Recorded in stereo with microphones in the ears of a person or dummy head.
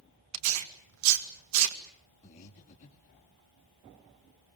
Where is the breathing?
40° left (ahead or behind), 2.5 m.